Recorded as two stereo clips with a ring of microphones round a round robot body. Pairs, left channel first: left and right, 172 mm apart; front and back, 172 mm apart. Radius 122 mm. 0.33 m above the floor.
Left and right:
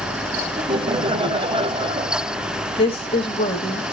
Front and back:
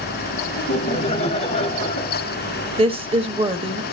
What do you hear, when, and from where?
0.6 s laughter: 45° right, 1.8 m
2.8 s a woman speaking: 140° left, 1.3 m